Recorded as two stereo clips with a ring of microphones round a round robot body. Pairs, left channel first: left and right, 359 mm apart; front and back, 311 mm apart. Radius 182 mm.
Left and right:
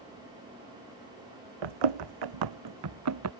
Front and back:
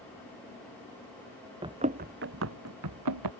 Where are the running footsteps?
100° right; by 3.3 s 140° right.